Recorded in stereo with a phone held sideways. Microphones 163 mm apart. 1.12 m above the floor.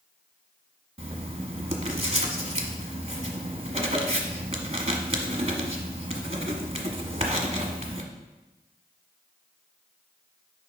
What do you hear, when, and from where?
1.0 s writing: 40° right (ahead or behind), 1.0 m